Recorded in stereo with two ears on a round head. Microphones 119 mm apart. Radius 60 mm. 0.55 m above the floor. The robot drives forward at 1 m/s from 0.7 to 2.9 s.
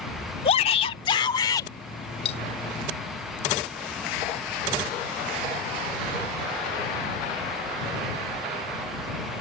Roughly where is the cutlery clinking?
Left.